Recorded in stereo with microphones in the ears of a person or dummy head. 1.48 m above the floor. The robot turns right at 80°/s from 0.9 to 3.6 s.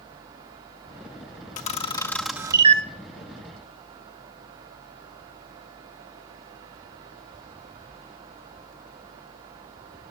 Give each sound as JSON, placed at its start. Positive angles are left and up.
{"t": 1.6, "sound": "a camera shutter", "side_deg": 40, "distance_m": 0.8}